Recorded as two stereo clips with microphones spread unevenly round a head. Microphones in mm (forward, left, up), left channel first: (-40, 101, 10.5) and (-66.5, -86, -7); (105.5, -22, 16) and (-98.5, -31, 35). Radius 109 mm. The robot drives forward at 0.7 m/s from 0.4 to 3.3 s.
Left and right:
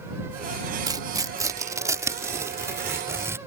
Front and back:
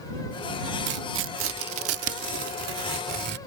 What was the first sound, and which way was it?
Tearing paper, 170° right.